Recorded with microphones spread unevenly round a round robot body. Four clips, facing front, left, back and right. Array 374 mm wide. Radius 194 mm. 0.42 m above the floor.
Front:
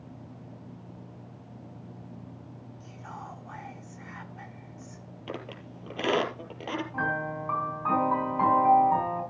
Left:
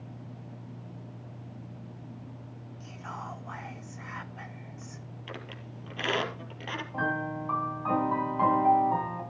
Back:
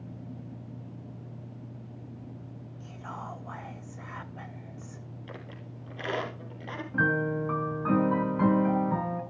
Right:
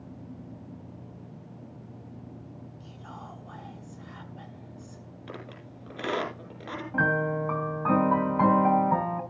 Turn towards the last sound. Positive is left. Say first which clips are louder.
# right 6 dB, back 6 dB
turn(degrees=-135)